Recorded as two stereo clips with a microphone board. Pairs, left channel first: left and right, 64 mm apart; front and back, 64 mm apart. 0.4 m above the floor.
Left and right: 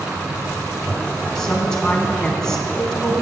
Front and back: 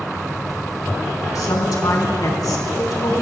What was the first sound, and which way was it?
A woman speaking, 10° left.